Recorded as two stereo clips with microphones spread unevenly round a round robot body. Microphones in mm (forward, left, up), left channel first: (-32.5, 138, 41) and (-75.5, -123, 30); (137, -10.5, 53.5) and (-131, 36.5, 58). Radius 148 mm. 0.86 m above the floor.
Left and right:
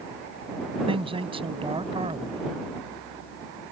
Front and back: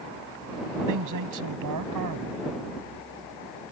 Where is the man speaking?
170° right.